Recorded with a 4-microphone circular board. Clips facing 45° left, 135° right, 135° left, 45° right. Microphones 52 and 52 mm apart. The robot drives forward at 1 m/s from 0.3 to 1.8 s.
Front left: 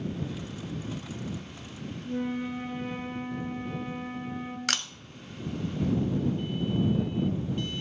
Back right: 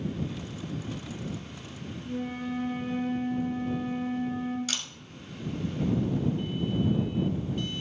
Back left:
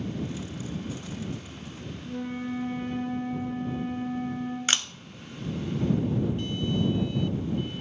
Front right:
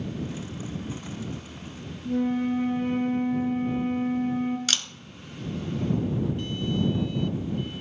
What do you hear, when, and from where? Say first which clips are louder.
2.0 s a flute: front left 2 dB, front right 8 dB; 15° right, 2 m
4.7 s a camera shutter: front left 5 dB, back left 2 dB; 75° left, 0.6 m